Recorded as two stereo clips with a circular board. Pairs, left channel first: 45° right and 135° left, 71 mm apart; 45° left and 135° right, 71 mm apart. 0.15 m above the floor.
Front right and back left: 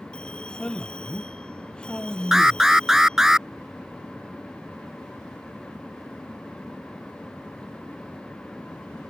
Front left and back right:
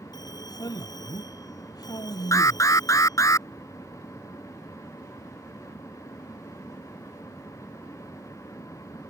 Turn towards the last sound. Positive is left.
turn(degrees=55)